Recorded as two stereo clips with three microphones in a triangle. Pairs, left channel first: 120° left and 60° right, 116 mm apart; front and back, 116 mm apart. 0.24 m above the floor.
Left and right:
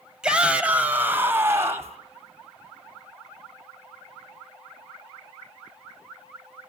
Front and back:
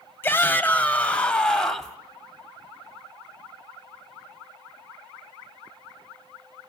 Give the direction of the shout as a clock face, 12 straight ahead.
12 o'clock.